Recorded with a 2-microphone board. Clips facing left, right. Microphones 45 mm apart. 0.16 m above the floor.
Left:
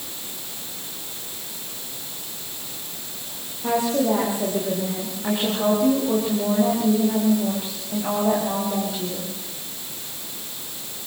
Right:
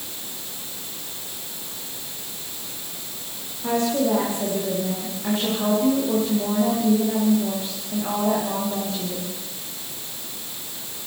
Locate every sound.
3.6 s a woman speaking: 10° left (ahead or behind), 8 m